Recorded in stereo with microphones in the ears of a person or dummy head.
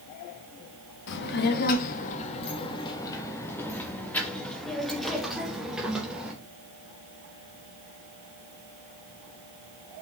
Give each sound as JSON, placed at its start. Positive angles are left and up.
{"t": 1.1, "sound": "a child speaking", "side_deg": 65, "distance_m": 1.2}